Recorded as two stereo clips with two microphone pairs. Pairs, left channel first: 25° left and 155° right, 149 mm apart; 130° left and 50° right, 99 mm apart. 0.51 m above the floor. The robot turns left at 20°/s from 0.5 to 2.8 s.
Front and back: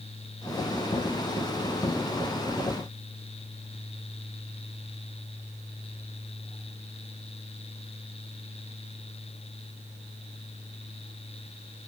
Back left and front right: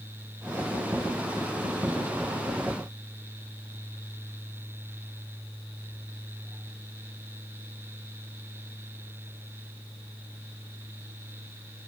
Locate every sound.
Only background noise.